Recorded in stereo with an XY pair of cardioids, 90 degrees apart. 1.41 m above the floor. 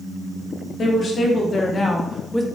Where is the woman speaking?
55° left, 1.1 m; by 2.5 s 5° left, 0.6 m.